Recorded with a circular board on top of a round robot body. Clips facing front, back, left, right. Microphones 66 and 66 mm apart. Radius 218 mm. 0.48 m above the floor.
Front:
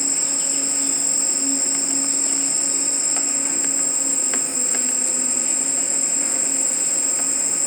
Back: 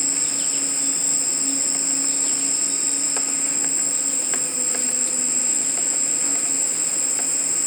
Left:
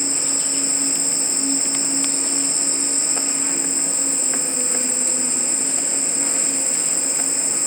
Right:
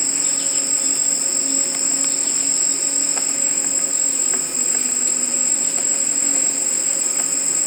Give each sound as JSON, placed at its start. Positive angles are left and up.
{"t": 0.0, "sound": "an insect", "azimuth_deg": 50, "distance_m": 0.7}